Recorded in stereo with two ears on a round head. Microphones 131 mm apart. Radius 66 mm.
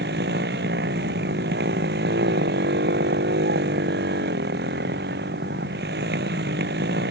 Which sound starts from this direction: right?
A motorcycle, at 0.0 s.